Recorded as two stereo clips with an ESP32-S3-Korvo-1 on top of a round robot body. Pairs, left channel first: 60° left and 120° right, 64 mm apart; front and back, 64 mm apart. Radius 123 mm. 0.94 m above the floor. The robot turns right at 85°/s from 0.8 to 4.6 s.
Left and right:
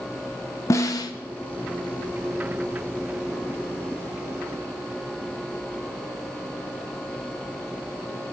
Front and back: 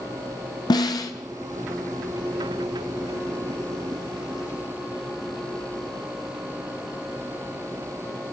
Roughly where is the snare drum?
Ahead.